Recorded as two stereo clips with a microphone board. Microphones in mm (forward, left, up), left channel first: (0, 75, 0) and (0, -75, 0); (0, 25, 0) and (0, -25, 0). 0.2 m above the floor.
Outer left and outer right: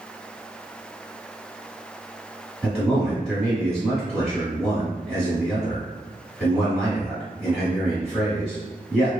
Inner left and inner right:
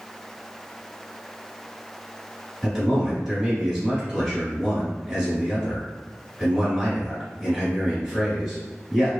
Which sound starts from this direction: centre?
A man speaking, at 2.6 s.